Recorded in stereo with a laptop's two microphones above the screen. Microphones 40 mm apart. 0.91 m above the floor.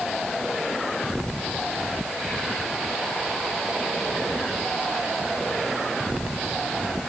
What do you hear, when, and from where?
Only background noise.